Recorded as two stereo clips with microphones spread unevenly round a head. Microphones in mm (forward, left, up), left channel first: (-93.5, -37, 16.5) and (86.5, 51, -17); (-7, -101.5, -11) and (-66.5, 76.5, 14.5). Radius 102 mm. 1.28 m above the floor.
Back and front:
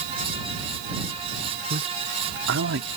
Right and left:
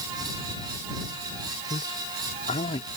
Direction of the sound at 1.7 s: 15° right.